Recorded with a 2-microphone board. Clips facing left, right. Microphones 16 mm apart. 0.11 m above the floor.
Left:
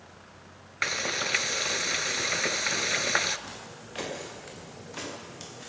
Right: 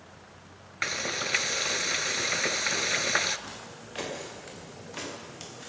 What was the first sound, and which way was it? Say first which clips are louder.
Frying: left 2 dB; 10° left (ahead or behind).